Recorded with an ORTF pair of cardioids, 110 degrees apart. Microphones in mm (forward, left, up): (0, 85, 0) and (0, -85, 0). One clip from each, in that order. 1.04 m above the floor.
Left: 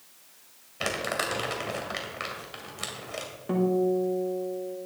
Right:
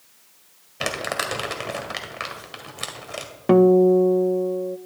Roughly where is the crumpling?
Ahead right.